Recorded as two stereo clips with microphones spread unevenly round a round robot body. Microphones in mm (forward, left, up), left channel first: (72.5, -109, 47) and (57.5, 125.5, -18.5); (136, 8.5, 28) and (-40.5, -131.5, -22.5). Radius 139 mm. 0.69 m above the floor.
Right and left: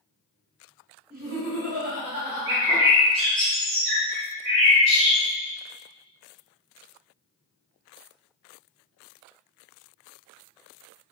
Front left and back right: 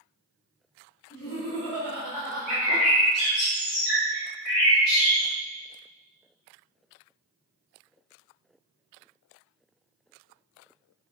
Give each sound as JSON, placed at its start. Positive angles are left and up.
{"t": 1.1, "sound": "laughter", "azimuth_deg": 125, "distance_m": 1.7}
{"t": 2.5, "sound": "a bird", "azimuth_deg": 50, "distance_m": 1.7}